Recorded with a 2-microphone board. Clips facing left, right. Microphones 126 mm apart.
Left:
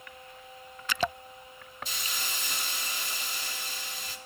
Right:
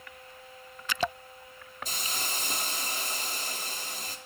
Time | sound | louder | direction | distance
1.9 | a hiss | right 3 dB | 45° right (ahead or behind) | 2.5 m